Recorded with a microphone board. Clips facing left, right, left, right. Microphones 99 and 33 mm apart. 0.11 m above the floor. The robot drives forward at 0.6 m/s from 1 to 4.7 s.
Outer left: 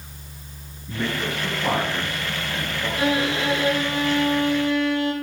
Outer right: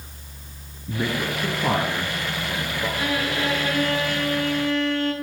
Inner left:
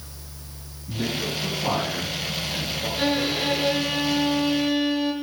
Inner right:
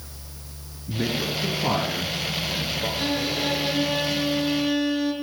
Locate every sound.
0.9 s a man speaking: 25° right (ahead or behind), 1.7 m; by 2.9 s 15° right (ahead or behind), 2.5 m
3.0 s a violin: 25° left (ahead or behind), 1.1 m; by 5.1 s 15° left (ahead or behind), 1.9 m